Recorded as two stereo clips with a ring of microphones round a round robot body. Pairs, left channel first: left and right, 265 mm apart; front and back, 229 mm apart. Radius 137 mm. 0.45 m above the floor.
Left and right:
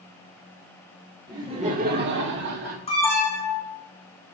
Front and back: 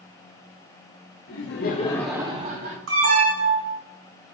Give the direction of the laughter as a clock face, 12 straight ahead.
12 o'clock.